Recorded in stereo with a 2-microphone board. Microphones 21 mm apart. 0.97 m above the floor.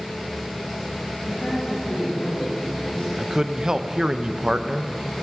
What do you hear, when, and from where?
1.3 s a man speaking: 60° left (ahead or behind), 5.5 m
3.2 s a man speaking: 30° right (ahead or behind), 0.6 m